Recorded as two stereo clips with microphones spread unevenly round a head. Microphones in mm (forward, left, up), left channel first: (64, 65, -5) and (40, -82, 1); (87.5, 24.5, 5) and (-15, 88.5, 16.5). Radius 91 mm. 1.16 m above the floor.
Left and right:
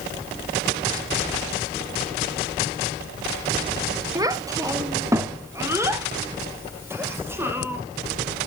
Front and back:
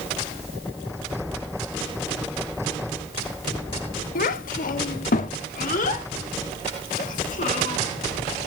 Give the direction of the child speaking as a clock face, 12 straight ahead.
1 o'clock.